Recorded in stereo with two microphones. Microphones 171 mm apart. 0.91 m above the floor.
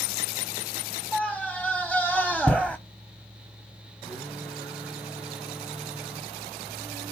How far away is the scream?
About 1.1 m.